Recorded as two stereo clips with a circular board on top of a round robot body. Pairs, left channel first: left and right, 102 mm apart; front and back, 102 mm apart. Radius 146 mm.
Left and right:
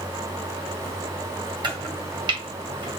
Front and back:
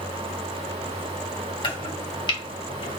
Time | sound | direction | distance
1.6 | chopping | 45° right | 2 m